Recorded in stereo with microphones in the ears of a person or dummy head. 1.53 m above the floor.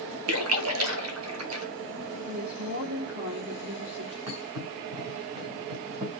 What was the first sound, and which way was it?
A splash, 80° right.